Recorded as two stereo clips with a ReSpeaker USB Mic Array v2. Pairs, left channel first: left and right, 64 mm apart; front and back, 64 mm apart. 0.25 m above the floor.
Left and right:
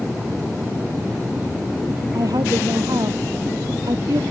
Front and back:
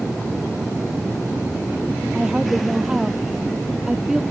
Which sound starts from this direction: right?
A woman speaking, at 2.1 s.